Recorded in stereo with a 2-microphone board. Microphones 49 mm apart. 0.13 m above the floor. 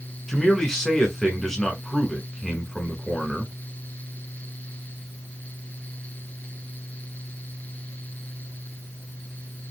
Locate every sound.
0.3 s a man speaking: 10° left (ahead or behind), 1.1 m